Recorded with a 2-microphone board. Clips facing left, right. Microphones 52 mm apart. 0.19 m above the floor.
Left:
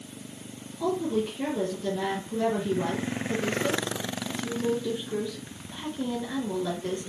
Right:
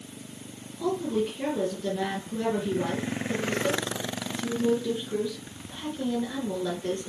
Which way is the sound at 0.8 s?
10° left (ahead or behind).